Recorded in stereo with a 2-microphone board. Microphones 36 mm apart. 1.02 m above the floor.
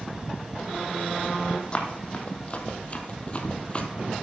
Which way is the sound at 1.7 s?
30° left (ahead or behind).